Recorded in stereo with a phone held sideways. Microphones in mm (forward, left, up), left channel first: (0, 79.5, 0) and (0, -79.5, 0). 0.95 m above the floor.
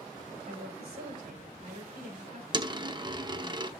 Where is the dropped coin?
30° right (ahead or behind), 0.8 m.